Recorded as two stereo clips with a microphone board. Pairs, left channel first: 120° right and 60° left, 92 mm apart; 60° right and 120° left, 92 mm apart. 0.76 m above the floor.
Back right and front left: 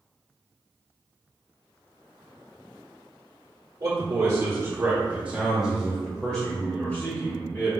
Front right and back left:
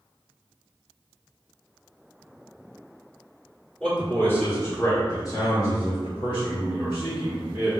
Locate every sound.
3.8 s a man speaking: 25° left, 1.7 m; by 7.7 s 65° right, 2.5 m